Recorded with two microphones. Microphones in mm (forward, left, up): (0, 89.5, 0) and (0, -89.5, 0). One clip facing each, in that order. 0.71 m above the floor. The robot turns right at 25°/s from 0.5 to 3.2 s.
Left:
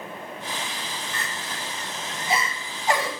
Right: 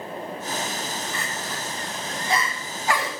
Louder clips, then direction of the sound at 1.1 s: Right 3 dB; 15° right (ahead or behind).